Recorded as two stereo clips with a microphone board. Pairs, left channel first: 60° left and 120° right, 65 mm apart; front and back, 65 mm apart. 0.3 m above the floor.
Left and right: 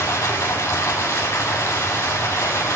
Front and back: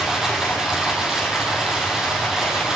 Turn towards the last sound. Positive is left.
turn(degrees=100)